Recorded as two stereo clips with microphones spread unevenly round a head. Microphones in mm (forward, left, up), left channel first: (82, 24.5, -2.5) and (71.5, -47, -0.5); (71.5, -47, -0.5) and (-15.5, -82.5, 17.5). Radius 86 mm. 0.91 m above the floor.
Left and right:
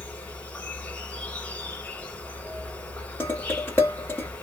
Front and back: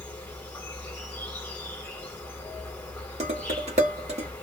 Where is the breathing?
I don't hear breathing.